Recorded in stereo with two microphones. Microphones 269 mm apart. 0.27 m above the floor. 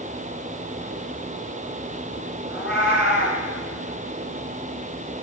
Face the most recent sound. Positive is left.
turn(degrees=45)  # may be behind; listen again after turning